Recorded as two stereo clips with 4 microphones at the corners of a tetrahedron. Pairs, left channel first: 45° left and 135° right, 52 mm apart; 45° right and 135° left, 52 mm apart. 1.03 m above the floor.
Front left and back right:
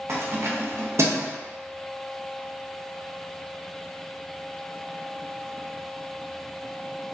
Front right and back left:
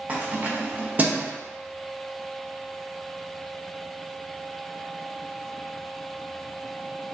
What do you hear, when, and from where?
0.1 s keys jangling: 165° right, 0.6 m